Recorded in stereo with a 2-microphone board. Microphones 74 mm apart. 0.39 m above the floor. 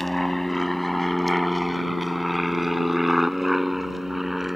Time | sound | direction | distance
0.0 | an aircraft | 5° left (ahead or behind) | ?